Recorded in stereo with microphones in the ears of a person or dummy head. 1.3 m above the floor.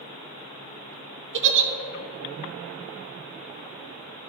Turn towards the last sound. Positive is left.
turn(degrees=-55)  # may be behind; listen again after turning